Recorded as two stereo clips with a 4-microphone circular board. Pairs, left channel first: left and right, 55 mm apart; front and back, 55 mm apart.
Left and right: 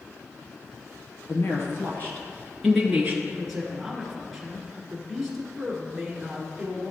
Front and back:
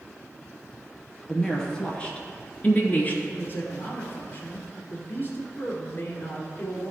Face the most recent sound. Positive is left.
turn(degrees=0)